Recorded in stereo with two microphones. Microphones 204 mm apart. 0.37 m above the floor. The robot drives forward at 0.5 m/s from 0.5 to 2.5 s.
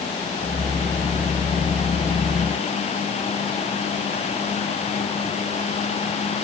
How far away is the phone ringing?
I don't hear a phone ringing.